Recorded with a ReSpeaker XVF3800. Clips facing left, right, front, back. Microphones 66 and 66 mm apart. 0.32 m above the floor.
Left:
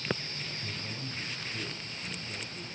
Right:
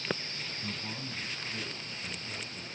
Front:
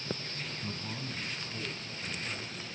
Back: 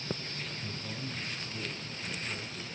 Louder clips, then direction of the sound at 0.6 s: Right 1 dB, even; 55° right.